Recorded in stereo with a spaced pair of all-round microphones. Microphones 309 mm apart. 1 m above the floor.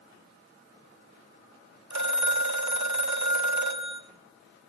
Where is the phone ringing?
65° right (ahead or behind), 0.9 m.